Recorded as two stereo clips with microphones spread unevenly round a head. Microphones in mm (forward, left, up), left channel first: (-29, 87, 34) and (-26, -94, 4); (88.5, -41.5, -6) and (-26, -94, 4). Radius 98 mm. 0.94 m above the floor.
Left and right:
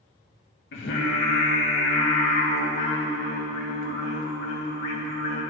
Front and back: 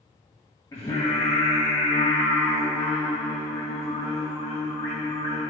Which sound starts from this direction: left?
Singing, at 0.7 s.